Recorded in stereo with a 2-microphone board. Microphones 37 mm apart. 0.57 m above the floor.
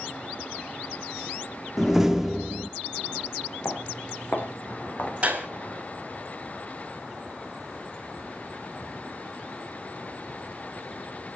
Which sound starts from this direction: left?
Footsteps, at 3.6 s.